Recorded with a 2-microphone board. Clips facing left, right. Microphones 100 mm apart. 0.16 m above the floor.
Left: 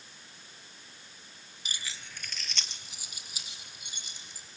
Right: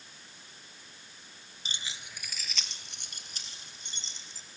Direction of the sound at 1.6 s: 30° right (ahead or behind).